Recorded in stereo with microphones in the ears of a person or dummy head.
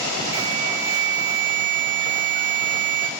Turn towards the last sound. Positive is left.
turn(degrees=-70)  # may be behind; listen again after turning